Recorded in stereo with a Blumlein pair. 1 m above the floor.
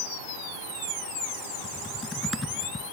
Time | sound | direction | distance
1.6 | typing on a keyboard | 10° left | ?